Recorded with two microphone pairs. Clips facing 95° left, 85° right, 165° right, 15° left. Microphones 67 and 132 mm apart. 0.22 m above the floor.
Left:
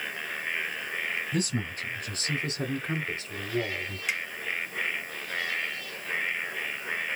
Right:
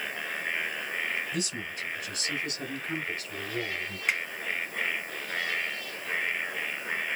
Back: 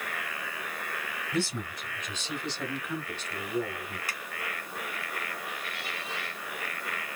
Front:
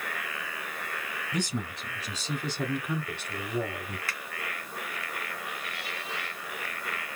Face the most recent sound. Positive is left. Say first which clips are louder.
# right 3 dB, front 1 dB
turn(degrees=-95)